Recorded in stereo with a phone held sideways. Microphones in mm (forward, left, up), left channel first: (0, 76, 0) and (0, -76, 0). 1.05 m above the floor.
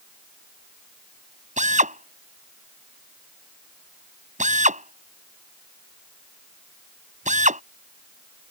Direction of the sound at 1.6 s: 50° right (ahead or behind).